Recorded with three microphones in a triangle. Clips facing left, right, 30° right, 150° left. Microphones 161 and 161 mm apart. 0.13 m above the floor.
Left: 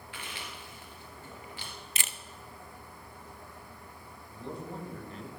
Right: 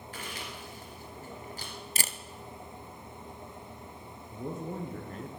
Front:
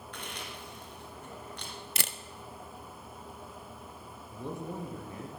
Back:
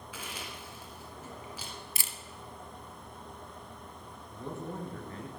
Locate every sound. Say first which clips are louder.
0.1 s chewing: right 2 dB, even; 125° right, 2.5 m
2.0 s a camera shutter: right 5 dB, front 6 dB; 40° right, 0.5 m
4.3 s a man speaking: right 3 dB, front 1 dB; 100° right, 2.5 m